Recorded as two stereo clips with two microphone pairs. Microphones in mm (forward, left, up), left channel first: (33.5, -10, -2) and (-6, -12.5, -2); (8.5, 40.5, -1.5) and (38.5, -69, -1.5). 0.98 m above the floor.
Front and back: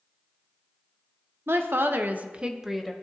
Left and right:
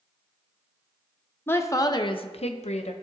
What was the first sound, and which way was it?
A woman speaking, 175° left.